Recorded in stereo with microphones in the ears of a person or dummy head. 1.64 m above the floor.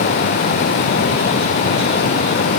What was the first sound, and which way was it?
Only background noise.